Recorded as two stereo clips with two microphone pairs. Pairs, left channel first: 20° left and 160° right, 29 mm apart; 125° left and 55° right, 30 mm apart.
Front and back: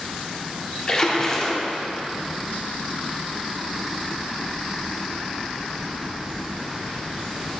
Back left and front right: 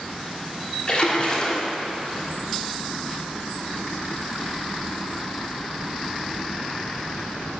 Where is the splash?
75° left, 1.2 m.